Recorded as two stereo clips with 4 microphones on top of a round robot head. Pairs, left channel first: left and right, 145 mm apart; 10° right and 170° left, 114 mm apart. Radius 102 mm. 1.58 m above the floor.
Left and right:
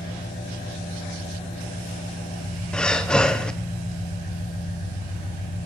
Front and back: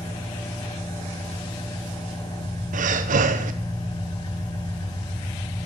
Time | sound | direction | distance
0.0 | an engine running | 40° left | 6.5 m
2.7 | breathing | 175° left | 0.9 m